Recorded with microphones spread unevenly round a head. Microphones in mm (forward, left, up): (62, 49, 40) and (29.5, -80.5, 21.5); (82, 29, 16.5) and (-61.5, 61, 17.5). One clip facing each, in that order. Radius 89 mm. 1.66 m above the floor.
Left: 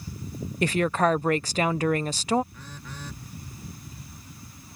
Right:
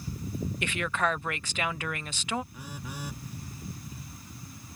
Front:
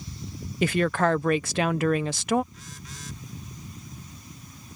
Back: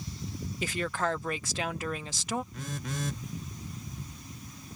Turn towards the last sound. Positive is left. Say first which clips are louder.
# right 2 dB, back 8 dB
turn(degrees=170)